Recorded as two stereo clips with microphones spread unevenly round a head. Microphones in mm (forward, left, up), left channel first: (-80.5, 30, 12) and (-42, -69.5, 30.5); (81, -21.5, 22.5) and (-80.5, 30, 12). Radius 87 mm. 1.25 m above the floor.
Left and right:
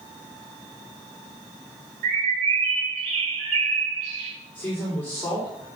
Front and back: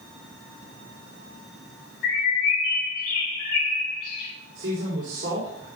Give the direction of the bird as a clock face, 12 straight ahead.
2 o'clock.